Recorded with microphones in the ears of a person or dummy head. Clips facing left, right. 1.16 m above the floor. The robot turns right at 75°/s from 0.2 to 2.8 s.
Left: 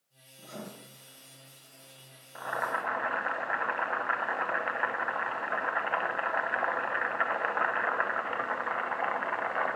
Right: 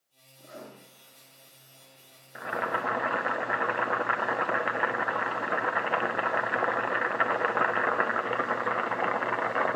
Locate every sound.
0.4 s writing: 30° left (ahead or behind), 7 m; by 0.7 s 55° left (ahead or behind), 7 m
2.4 s boiling: 160° right, 0.6 m; by 9.8 s 125° right, 0.6 m